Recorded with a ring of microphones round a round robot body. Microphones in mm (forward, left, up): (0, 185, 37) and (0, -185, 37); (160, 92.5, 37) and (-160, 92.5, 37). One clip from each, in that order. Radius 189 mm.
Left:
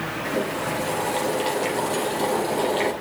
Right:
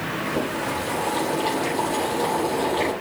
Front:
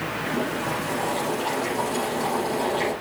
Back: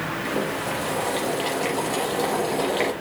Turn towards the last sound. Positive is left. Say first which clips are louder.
# left 1 dB, even
turn(degrees=150)